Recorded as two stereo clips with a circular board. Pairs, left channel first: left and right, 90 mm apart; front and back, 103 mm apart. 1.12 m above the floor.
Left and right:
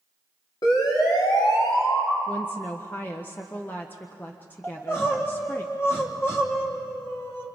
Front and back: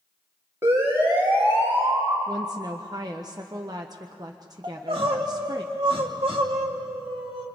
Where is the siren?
115° left, 3.5 m; by 2.2 s 110° left, 5.5 m.